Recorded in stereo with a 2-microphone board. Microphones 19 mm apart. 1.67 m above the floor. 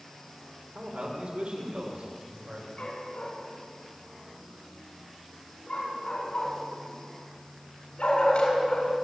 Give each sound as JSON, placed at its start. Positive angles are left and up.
{"t": 0.8, "sound": "a man speaking", "side_deg": -90, "distance_m": 6.5}
{"t": 2.8, "sound": "a dog barking", "side_deg": 75, "distance_m": 7.5}